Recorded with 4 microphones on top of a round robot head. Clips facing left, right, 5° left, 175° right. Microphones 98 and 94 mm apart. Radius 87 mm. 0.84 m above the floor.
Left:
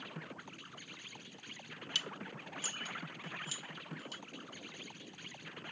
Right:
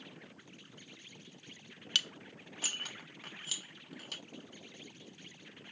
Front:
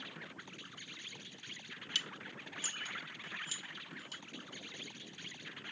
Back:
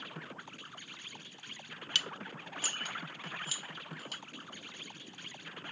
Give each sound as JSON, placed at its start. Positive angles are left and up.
{"t": 0.0, "sound": "an insect", "azimuth_deg": 140}
{"t": 1.9, "sound": "dishes clattering", "azimuth_deg": -135}